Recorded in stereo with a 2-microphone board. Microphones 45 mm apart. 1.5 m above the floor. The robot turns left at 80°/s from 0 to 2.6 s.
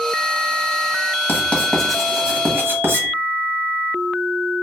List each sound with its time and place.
1.3 s writing: 45° left (ahead or behind), 0.8 m; by 3.1 s 55° right (ahead or behind), 0.8 m